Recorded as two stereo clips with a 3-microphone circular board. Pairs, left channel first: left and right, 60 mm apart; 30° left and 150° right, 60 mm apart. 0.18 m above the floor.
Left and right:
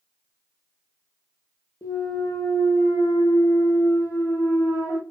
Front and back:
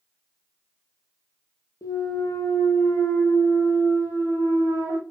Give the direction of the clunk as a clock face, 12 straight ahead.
10 o'clock.